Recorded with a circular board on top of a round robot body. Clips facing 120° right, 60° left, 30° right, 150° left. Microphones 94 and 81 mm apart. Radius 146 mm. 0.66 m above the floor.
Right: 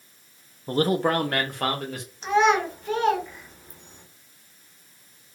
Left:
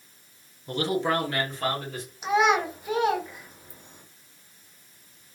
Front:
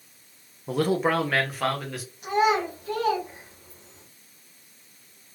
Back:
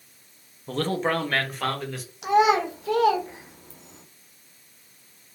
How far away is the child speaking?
About 0.8 m.